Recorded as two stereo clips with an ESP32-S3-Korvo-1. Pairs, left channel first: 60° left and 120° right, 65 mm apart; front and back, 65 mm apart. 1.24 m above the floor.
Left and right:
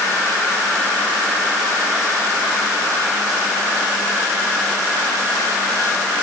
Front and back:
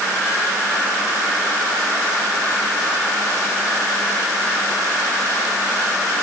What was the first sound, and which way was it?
Only background noise.